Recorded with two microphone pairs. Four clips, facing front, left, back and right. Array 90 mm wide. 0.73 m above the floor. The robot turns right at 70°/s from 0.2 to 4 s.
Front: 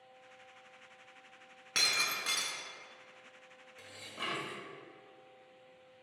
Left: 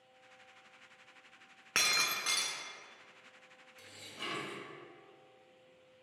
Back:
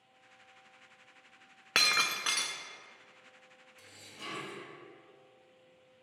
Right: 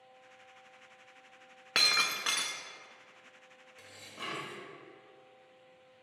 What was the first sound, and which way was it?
Breaking glass, 175° right.